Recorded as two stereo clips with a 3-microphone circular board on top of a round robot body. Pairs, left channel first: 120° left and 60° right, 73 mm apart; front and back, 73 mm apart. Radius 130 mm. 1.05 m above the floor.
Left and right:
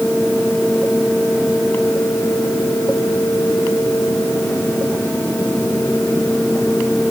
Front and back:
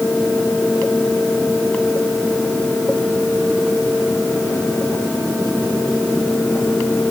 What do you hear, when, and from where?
Only background noise.